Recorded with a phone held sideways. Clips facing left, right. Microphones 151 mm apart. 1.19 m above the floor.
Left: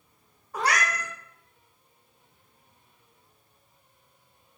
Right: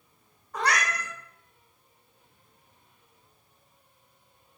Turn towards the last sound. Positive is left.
turn(degrees=10)  # may be behind; listen again after turning